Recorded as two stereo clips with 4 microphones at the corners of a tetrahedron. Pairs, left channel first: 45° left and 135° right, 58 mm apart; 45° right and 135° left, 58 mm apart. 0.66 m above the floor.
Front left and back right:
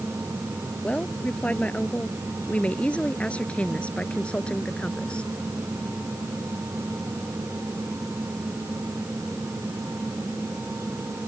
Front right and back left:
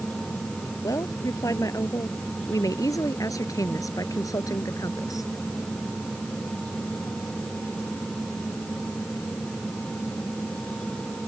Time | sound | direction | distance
0.8 | a woman speaking | 25° right | ?